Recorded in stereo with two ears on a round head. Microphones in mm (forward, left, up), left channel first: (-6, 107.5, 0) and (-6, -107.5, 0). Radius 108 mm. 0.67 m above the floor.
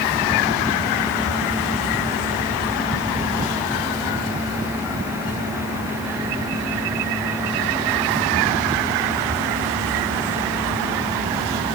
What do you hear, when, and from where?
Only background noise.